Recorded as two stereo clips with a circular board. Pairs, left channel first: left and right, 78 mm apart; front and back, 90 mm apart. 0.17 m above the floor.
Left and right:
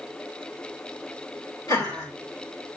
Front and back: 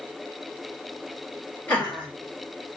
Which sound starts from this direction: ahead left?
Laughter, at 1.7 s.